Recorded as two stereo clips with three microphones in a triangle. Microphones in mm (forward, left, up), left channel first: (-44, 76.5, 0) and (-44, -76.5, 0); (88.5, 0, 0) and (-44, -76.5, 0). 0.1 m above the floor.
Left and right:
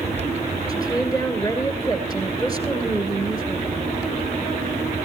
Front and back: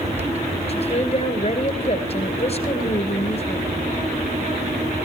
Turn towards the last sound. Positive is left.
turn(degrees=35)